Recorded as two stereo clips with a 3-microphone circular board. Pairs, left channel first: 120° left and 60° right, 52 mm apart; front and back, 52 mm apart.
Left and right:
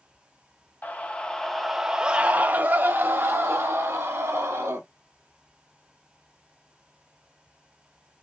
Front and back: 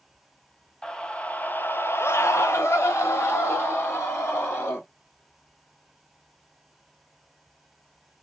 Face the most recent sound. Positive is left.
turn(degrees=-35)